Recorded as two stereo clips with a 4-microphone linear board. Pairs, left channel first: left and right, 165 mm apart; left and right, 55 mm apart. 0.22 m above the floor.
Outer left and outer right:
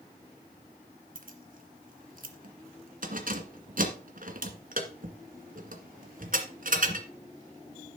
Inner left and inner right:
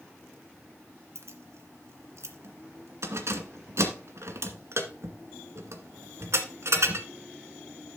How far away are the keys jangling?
About 1.9 m.